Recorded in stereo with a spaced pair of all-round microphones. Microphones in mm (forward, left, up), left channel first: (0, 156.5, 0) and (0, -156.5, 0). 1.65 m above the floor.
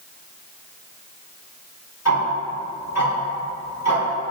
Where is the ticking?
55° left (ahead or behind), 2 m.